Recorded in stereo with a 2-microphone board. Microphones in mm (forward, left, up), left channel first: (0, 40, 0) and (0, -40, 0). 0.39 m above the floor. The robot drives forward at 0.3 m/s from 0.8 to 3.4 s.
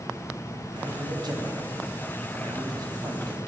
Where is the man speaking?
65° right (ahead or behind), 2.5 m; by 3.4 s 55° right (ahead or behind), 2.5 m.